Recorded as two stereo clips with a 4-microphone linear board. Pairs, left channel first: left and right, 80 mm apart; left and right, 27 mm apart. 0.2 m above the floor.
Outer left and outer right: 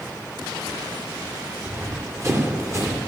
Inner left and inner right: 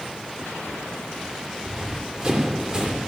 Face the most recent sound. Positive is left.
turn(degrees=-40)  # may be behind; listen again after turning